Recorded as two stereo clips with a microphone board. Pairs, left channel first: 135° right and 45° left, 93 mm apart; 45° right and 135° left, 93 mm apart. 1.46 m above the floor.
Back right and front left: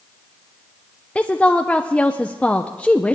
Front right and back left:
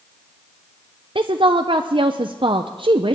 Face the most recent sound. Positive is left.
turn(degrees=150)